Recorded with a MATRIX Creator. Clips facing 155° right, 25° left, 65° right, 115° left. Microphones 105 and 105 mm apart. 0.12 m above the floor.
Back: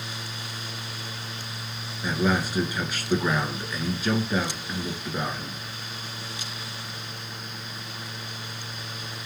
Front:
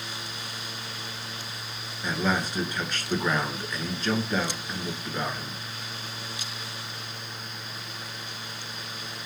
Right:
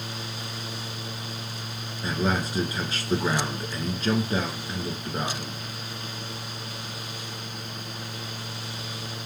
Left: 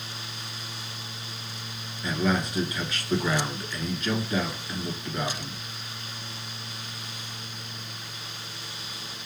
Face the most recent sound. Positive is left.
turn(degrees=-80)